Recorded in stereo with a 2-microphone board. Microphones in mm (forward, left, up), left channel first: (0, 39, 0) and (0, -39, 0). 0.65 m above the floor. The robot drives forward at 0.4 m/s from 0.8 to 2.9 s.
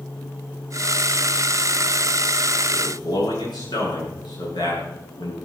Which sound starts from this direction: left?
A man speaking, at 2.7 s.